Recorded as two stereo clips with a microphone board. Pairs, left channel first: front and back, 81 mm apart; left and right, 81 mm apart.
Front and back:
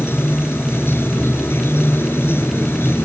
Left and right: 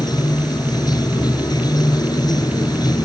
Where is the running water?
60° left.